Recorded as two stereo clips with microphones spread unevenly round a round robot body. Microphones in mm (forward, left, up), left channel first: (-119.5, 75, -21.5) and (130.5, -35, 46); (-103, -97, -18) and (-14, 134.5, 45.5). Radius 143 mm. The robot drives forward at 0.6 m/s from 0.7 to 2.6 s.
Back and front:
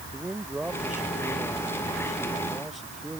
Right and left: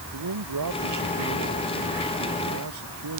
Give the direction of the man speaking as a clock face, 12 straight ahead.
10 o'clock.